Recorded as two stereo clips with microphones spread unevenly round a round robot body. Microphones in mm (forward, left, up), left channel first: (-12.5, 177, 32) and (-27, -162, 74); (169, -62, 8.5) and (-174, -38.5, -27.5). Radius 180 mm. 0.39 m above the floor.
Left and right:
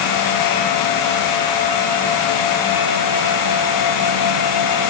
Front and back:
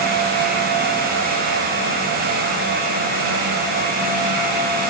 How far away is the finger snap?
No finger snap in this recording.